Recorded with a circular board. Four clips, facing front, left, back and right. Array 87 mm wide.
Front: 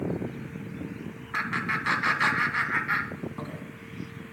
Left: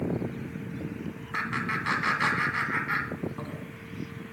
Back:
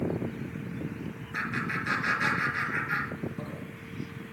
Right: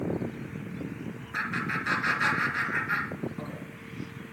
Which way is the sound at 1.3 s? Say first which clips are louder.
Left 1 dB, front 3 dB; 30° left.